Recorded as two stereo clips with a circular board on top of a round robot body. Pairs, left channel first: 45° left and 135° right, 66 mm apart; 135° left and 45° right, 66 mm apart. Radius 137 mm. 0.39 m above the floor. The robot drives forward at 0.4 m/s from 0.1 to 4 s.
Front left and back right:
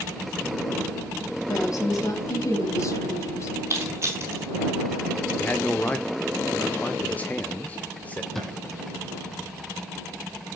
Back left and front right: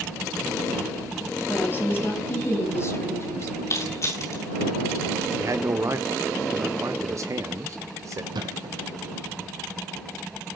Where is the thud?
40° right, 1.9 m.